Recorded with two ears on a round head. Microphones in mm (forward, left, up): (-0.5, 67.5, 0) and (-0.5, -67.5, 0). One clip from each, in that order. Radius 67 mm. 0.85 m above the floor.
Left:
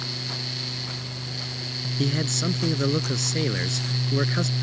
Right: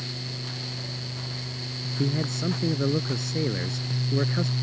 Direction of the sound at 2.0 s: 65° left (ahead or behind).